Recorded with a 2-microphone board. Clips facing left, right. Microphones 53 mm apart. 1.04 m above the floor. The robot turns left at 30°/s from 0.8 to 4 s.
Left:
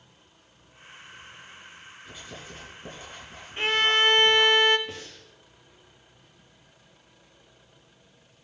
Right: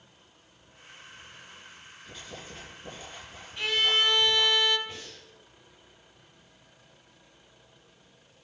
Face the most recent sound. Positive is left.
turn(degrees=65)  # may be behind; listen again after turning